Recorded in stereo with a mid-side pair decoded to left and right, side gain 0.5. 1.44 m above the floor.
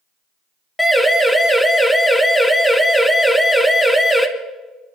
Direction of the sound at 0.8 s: 5° left.